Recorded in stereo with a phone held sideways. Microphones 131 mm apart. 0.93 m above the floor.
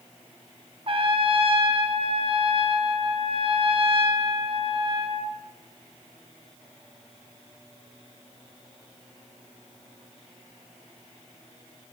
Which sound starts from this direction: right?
A trumpet, at 0.9 s.